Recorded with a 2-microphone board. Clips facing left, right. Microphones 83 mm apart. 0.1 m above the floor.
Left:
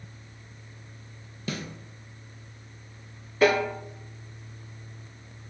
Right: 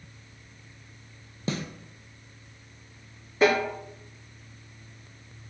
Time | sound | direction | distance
1.5 | a snare drum | 30° right (ahead or behind) | 0.6 m
3.4 | a snare drum | 20° right (ahead or behind) | 1.8 m